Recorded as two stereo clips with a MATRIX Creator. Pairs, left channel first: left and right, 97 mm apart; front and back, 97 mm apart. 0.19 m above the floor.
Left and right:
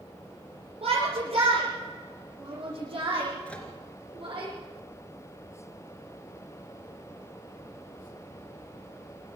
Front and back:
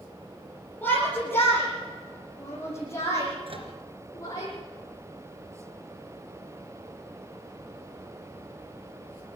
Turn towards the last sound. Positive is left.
turn(degrees=165)